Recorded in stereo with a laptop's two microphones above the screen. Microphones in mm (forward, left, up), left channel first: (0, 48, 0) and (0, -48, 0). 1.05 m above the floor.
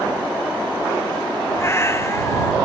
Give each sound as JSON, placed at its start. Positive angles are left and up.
{"t": 1.6, "sound": "a cat meowing", "side_deg": 30}